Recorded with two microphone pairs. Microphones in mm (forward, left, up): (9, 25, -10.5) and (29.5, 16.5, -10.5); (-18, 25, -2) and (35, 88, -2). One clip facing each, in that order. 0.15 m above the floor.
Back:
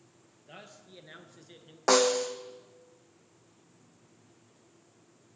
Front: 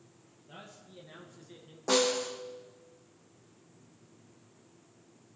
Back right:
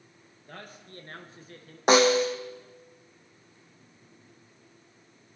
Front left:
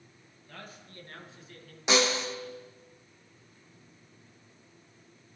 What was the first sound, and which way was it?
A man speaking, 160° right.